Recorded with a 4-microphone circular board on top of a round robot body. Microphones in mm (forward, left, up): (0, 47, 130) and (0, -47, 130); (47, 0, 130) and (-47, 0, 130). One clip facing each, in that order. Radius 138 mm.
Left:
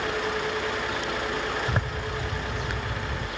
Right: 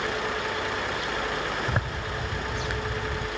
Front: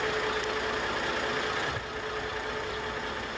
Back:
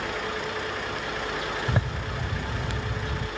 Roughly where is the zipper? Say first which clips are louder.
Left 1 dB, back 4 dB; behind.